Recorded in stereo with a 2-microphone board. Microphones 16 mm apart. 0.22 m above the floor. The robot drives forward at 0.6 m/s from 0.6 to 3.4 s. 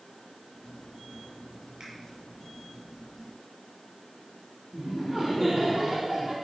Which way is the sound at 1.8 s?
55° right (ahead or behind).